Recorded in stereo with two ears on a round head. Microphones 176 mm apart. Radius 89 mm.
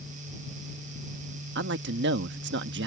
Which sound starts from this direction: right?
A man speaking, at 1.6 s.